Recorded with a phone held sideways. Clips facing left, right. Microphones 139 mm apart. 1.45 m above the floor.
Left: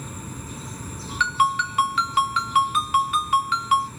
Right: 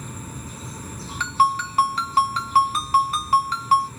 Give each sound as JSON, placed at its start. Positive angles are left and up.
{"t": 1.2, "sound": "a ringtone", "side_deg": -35, "distance_m": 1.4}